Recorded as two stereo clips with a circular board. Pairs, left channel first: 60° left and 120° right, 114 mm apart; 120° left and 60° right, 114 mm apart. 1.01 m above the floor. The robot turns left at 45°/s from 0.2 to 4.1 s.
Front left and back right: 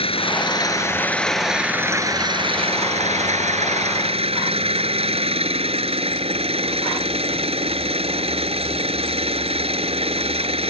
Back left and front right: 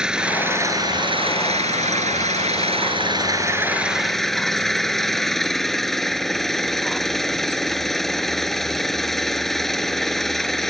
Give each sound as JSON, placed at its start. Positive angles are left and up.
{"t": 0.0, "sound": "an engine running", "azimuth_deg": 25}